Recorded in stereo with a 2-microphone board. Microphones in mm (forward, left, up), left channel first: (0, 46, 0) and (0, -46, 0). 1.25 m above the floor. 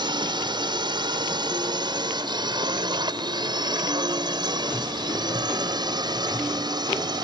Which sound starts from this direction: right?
A drone, at 0.0 s.